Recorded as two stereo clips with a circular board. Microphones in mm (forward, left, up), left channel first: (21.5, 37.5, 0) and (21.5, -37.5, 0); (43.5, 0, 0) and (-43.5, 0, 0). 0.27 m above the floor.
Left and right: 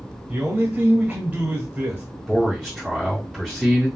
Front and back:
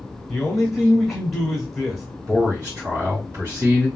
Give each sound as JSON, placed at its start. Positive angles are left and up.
{"t": 0.3, "sound": "a man speaking", "azimuth_deg": -90, "distance_m": 0.9}
{"t": 2.3, "sound": "a man speaking", "azimuth_deg": -175, "distance_m": 1.7}